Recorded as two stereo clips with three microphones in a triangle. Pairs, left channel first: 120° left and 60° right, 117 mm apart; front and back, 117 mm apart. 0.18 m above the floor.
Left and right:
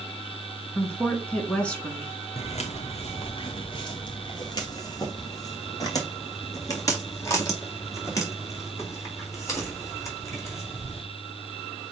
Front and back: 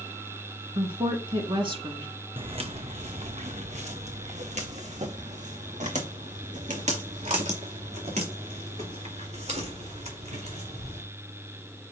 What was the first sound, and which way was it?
A woman speaking, 165° right.